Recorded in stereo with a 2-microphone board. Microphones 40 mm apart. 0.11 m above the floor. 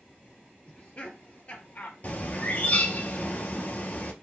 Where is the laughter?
30° left (ahead or behind), 3 m; by 1.9 s 40° left (ahead or behind), 2.5 m.